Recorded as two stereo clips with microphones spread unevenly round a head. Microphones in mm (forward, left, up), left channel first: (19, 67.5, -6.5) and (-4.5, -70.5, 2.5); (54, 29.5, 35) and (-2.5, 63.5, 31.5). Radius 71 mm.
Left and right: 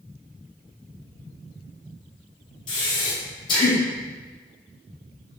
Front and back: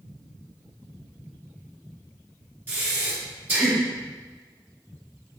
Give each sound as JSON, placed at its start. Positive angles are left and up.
{"t": 2.7, "sound": "breathing", "azimuth_deg": 110, "distance_m": 0.7}